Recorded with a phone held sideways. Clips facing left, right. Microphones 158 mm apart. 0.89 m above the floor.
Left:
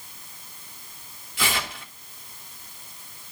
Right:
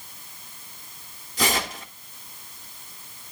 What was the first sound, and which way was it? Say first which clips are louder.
Tearing paper: right 4 dB; 40° right (ahead or behind).